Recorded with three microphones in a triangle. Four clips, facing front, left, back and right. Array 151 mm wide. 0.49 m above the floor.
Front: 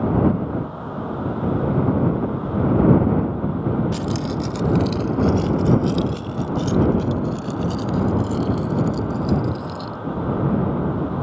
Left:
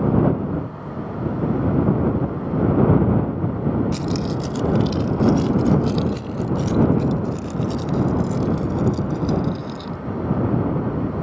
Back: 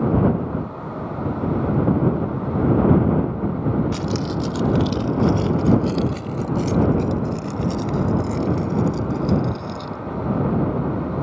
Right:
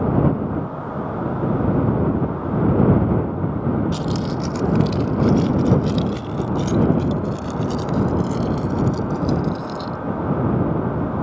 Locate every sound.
3.9 s keys jangling: 165° right; by 10.0 s 95° right